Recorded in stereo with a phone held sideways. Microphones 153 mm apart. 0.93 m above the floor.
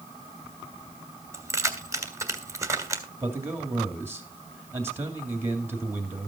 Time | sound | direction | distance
1.3 | keys jangling | 20° right (ahead or behind) | 1.8 m
3.2 | a man speaking | 15° right (ahead or behind) | 2.5 m